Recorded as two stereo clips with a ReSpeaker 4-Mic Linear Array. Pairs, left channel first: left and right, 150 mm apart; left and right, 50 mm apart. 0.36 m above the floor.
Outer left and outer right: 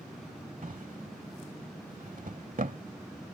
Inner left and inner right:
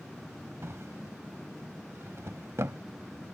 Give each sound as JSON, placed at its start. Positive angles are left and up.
{"t": 0.6, "sound": "a drawer", "side_deg": -65}